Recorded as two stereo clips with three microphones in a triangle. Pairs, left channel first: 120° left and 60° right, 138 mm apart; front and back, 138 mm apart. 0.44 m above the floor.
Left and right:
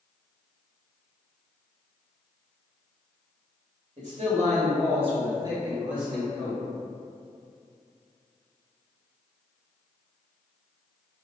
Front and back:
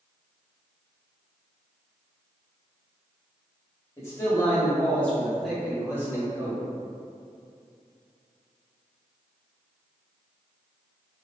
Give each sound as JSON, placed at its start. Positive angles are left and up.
{"t": 4.0, "sound": "a man speaking", "azimuth_deg": -65, "distance_m": 1.4}